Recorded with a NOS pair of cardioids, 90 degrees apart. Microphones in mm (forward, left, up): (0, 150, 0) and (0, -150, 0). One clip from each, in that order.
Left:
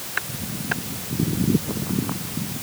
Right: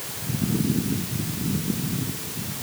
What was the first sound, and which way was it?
Only background noise.